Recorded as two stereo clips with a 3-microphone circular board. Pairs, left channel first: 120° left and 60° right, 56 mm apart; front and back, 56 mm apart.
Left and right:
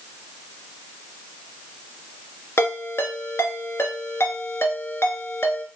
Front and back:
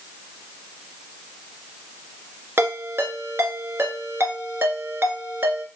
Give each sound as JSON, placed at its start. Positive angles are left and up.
{"t": 2.6, "sound": "a ringtone", "azimuth_deg": 145, "distance_m": 1.3}